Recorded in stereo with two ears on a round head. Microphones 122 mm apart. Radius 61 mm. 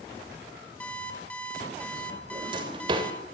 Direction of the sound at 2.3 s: 35° right (ahead or behind).